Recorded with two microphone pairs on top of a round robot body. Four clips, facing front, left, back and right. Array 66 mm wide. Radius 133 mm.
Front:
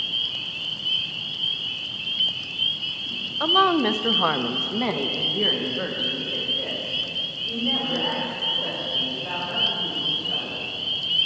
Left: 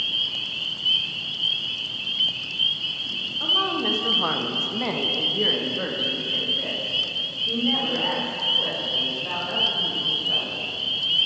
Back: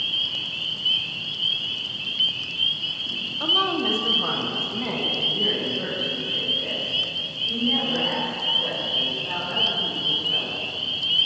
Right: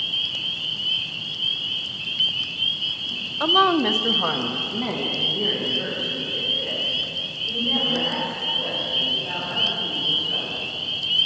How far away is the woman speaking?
About 1.2 m.